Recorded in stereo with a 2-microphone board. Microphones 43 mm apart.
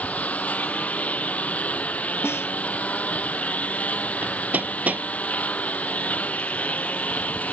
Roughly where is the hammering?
Right.